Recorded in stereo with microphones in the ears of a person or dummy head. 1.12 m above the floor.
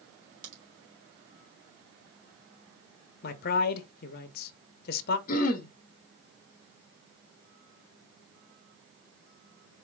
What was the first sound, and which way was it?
A crack, 50° right (ahead or behind).